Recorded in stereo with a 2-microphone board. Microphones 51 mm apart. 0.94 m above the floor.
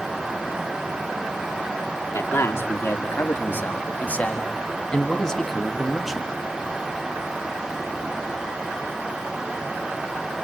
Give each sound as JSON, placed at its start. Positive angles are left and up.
{"t": 2.1, "sound": "a man speaking", "side_deg": 55, "distance_m": 2.5}